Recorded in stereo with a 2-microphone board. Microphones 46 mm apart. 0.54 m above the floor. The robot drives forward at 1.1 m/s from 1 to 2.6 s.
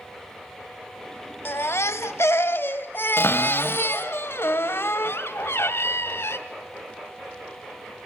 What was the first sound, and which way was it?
A baby crying, 60° left (ahead or behind).